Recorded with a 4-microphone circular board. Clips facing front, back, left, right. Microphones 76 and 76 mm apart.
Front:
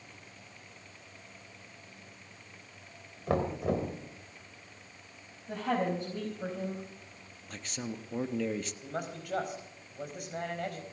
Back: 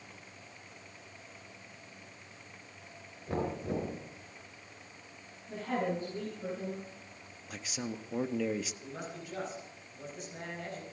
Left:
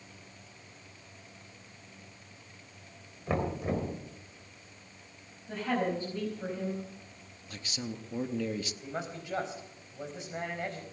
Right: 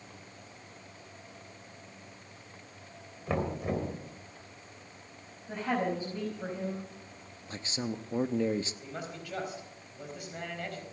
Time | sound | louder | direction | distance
3.3 | knocking | front 4 dB, even | 5° left | 3 m
5.5 | a woman speaking | front 3 dB, even | 10° right | 4.5 m
7.5 | a man speaking | even, right 4 dB | 100° right | 0.7 m
8.8 | a man speaking | front 4 dB, left 2 dB | 25° left | 4.5 m